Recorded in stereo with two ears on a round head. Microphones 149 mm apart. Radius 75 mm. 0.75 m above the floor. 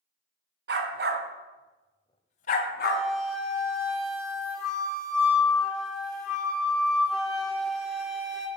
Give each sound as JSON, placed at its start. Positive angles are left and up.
{"t": 0.7, "sound": "a dog barking", "side_deg": -70, "distance_m": 1.6}
{"t": 2.8, "sound": "a flute", "side_deg": 0, "distance_m": 1.9}